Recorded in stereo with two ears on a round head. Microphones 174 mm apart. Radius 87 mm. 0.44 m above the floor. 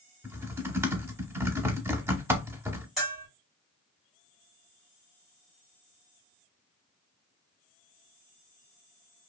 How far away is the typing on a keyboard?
About 0.6 m.